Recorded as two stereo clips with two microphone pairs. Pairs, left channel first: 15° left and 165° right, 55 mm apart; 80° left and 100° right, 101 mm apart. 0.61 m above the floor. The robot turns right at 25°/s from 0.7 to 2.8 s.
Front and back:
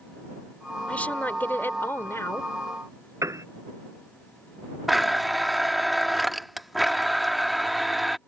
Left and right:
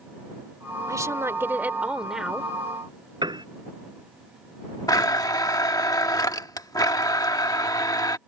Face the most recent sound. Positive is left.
turn(degrees=105)